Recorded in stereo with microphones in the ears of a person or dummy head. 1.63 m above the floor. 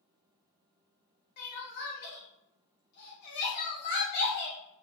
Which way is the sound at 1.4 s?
50° left (ahead or behind).